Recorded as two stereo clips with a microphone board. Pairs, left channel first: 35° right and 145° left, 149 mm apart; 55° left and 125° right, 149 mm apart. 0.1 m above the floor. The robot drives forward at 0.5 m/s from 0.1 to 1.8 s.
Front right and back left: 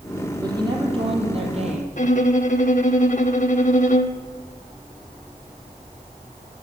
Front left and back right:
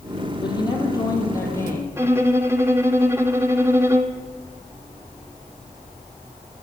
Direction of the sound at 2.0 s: 55° right.